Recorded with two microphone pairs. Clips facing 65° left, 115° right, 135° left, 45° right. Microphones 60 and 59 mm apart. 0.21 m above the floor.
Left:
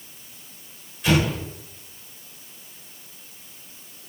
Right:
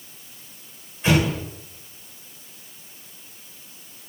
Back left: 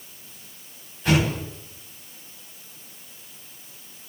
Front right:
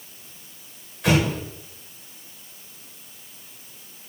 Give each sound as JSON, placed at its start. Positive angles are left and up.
{"t": 1.0, "sound": "an explosion", "azimuth_deg": -55, "distance_m": 8.5}